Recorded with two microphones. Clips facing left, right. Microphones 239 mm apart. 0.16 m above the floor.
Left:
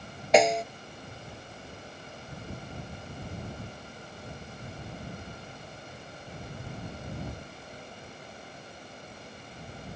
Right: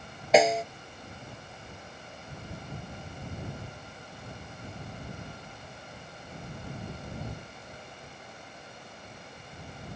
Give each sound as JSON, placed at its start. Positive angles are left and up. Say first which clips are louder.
{"t": 0.3, "sound": "a snare drum", "louder": "even", "side_deg": 0}